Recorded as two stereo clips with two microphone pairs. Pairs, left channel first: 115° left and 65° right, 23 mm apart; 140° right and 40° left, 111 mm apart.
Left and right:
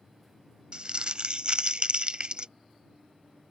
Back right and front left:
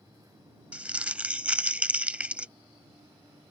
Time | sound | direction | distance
0.7 | crumpling | 35° right | ?